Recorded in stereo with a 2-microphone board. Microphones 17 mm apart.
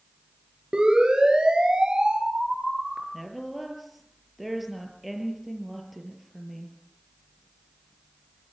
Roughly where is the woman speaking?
Centre.